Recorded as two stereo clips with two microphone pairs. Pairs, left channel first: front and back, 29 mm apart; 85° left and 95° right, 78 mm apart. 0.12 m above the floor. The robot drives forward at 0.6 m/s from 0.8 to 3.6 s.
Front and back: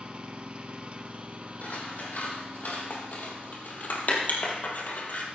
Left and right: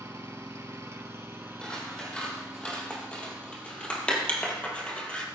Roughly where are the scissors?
Ahead.